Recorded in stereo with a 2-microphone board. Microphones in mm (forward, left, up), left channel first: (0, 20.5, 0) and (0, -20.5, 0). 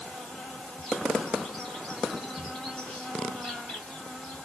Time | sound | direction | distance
0.0 | an insect | 20° left (ahead or behind) | 2.5 m